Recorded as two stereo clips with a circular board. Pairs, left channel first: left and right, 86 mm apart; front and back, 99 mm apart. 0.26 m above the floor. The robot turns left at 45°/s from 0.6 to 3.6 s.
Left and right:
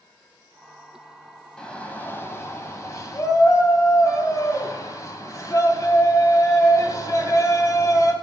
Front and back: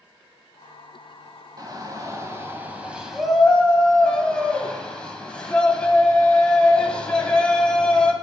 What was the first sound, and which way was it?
A shout, 165° left.